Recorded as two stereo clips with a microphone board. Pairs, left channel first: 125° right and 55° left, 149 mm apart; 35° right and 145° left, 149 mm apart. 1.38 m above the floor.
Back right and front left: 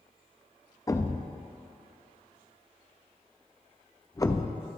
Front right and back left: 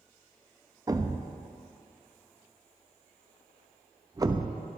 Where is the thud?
170° right, 0.7 m.